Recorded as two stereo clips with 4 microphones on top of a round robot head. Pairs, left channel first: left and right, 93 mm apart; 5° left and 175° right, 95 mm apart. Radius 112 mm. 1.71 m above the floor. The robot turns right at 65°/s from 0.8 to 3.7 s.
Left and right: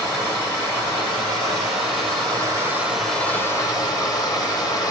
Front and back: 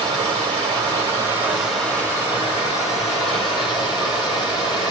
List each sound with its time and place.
0.0 s running water: 150° right, 1.5 m; by 4.9 s 40° left, 1.5 m